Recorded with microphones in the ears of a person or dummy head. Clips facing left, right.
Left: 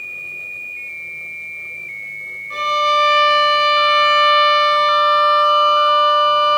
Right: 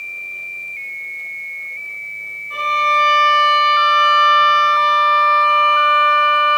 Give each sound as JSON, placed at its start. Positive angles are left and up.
{"t": 2.5, "sound": "a violin", "side_deg": 65, "distance_m": 3.5}